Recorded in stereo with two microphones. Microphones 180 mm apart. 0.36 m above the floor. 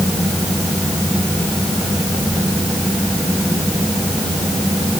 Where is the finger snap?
I don't hear a finger snap.